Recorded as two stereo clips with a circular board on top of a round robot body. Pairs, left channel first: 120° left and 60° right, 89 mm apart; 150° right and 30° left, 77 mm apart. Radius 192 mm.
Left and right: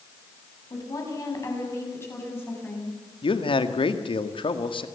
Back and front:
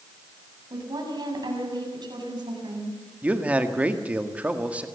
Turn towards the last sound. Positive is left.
turn(degrees=105)